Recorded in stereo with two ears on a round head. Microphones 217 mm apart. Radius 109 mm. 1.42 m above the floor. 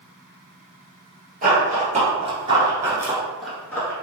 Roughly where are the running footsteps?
Right.